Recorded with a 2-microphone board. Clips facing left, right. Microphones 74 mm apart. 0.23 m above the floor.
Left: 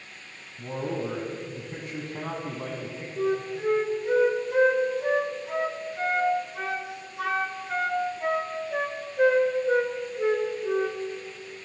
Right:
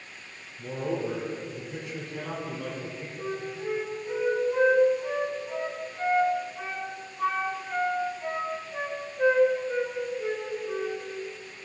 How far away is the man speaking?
About 1.9 m.